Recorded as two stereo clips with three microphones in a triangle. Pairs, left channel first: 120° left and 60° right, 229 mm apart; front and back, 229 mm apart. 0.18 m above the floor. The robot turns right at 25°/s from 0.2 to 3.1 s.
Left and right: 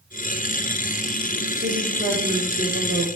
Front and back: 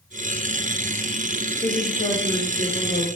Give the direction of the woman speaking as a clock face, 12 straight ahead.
2 o'clock.